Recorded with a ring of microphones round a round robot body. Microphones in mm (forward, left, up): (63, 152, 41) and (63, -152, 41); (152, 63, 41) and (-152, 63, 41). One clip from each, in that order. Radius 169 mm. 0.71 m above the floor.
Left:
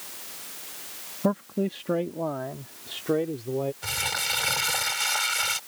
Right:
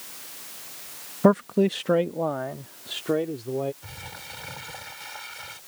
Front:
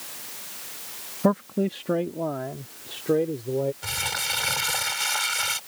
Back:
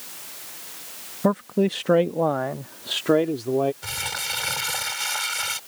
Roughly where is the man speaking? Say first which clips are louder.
Right 7 dB, back 2 dB; right.